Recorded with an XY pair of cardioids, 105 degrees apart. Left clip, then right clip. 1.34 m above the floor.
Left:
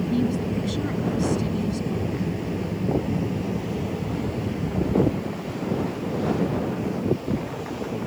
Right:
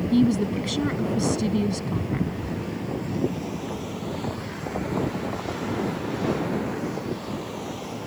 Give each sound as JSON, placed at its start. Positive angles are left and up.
{"t": 0.1, "sound": "a woman speaking", "azimuth_deg": -40}